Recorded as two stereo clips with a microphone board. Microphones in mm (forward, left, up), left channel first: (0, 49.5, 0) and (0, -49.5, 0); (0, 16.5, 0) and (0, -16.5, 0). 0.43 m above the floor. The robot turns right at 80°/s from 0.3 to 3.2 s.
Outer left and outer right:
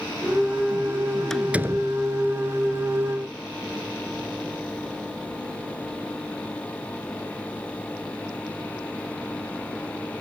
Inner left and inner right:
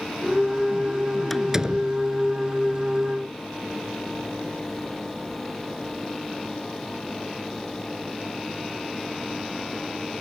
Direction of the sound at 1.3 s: 5° left (ahead or behind).